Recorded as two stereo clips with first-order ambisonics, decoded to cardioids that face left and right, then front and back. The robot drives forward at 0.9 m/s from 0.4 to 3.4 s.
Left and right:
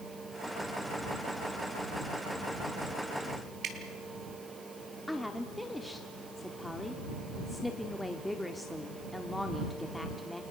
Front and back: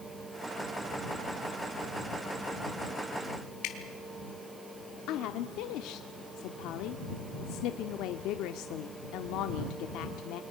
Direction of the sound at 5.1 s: 5° left.